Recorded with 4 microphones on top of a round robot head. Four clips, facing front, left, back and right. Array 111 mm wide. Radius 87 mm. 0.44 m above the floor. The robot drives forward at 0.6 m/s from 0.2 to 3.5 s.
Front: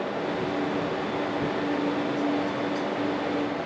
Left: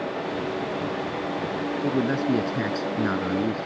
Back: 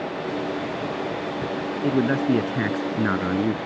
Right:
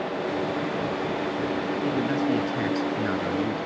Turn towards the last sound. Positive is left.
turn(degrees=155)